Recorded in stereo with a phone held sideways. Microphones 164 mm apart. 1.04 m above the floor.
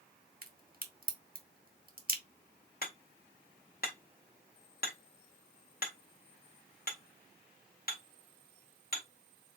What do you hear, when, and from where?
0.4 s a crack: 60° right (ahead or behind), 1.3 m
2.8 s hammering: 60° left (ahead or behind), 1.9 m